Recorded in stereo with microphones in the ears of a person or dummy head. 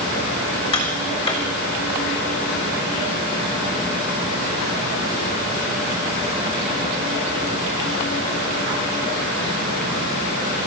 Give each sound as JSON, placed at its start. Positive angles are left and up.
{"t": 0.7, "sound": "tapping", "side_deg": 25, "distance_m": 5.5}